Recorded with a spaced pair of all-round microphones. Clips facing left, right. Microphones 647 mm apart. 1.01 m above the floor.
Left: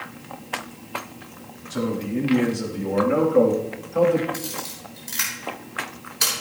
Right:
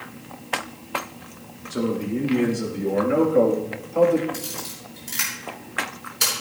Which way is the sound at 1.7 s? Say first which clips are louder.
Right 1 dB; 20° left (ahead or behind).